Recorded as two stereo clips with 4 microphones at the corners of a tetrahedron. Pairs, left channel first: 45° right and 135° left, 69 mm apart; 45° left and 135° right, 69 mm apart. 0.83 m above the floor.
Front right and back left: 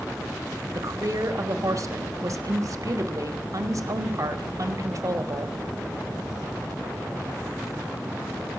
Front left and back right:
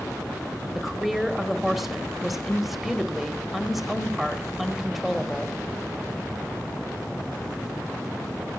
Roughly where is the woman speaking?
Behind left.